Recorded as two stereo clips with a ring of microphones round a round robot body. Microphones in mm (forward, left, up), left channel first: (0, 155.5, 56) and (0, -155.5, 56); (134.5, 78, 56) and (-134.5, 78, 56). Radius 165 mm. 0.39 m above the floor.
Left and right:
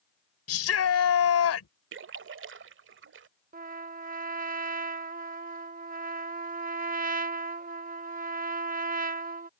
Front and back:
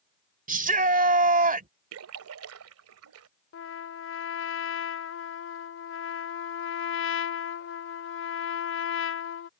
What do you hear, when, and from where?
0.5 s a shout: 125° left
1.9 s a splash: 140° right
3.5 s a trumpet: 30° right